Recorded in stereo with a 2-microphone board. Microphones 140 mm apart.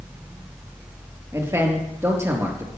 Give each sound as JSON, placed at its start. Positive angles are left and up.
{"t": 1.3, "sound": "a man speaking", "side_deg": -20, "distance_m": 4.0}